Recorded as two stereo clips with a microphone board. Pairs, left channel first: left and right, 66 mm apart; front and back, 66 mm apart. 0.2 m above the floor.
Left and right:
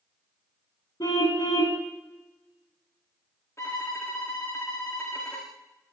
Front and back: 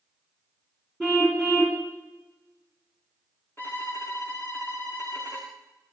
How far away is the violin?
About 7.5 m.